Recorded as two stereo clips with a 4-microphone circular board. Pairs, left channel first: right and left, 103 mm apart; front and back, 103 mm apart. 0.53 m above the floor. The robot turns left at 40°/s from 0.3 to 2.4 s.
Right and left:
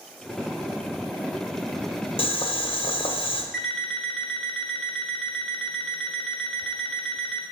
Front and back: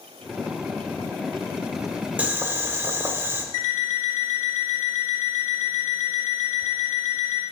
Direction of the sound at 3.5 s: 5° right.